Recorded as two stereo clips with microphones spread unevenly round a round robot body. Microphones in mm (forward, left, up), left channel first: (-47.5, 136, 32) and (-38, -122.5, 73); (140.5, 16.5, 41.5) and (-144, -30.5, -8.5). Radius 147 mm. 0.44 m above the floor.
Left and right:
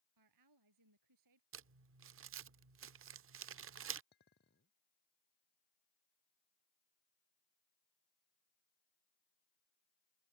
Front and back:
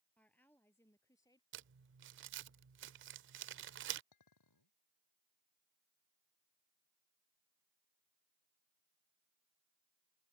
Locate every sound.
0.2 s a woman speaking: 75° right; by 1.4 s 70° right
1.5 s crumpling: 130° right
4.1 s a clink: 35° left